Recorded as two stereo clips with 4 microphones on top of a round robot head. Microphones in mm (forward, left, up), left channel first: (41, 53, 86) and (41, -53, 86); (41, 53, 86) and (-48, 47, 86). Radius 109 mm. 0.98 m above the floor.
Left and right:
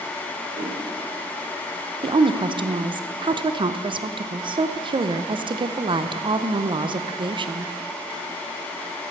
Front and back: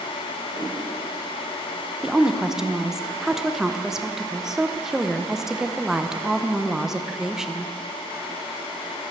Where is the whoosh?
60° right, 1.9 m.